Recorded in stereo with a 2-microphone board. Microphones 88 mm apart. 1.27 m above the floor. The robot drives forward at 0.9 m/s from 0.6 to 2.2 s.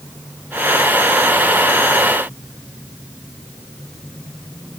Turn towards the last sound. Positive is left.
No sound to turn to.